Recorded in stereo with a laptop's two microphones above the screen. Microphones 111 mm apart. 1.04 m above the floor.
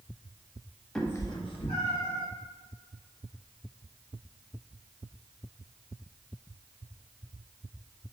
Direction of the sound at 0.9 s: 5° left (ahead or behind).